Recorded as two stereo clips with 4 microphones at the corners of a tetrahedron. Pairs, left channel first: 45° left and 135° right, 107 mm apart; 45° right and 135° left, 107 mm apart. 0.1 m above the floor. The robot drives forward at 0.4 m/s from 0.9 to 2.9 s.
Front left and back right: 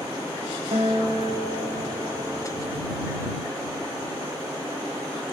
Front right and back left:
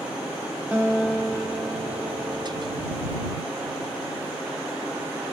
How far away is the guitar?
About 5 m.